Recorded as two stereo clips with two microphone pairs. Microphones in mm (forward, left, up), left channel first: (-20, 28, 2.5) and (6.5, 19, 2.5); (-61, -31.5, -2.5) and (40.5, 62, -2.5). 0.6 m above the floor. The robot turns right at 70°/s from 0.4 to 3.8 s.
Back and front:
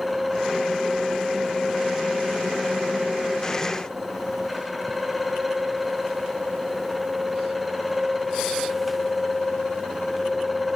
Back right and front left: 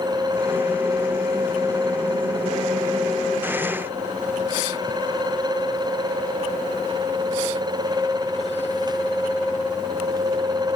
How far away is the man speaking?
I don't hear a man speaking.